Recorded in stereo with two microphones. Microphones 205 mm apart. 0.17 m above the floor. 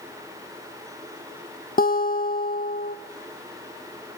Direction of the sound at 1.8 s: 45° left (ahead or behind).